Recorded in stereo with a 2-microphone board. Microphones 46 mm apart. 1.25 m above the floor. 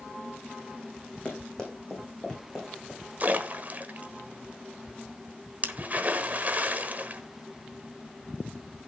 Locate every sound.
1.2 s running footsteps: 20° left (ahead or behind), 5 m; by 3.0 s 15° left (ahead or behind), 7 m
3.2 s a splash: 35° right (ahead or behind), 1.1 m